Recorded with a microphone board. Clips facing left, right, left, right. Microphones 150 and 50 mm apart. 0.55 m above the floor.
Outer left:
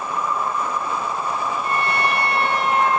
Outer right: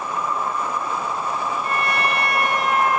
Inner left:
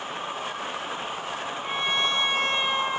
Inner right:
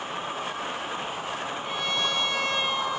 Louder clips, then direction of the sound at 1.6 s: Outer left 2 dB, inner left 4 dB; 30° left (ahead or behind).